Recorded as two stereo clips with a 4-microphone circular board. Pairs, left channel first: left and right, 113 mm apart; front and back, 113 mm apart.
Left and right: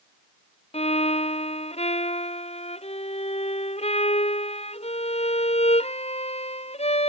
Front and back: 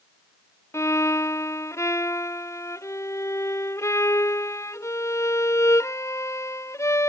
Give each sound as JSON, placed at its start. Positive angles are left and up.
{"t": 0.7, "sound": "a violin", "azimuth_deg": 65}